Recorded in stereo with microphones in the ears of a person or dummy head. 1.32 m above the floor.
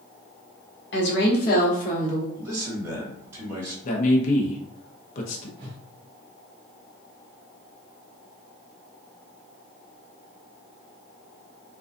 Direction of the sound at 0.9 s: 55° left (ahead or behind).